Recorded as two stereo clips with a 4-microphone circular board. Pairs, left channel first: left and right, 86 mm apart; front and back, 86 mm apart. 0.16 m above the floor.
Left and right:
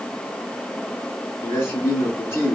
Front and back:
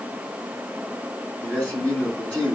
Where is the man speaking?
70° left, 2 m.